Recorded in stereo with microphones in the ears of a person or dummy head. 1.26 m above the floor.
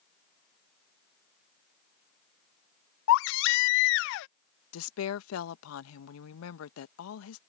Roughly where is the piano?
I don't hear a piano.